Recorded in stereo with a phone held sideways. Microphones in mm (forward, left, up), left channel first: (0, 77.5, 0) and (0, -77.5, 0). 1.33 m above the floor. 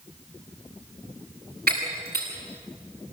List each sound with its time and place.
1.7 s breaking glass: 85° right, 8 m